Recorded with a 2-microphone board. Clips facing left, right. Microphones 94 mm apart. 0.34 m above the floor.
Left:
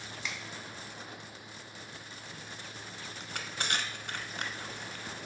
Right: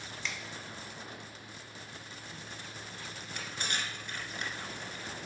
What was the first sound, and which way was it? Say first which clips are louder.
A finger snap: even; 5° left (ahead or behind).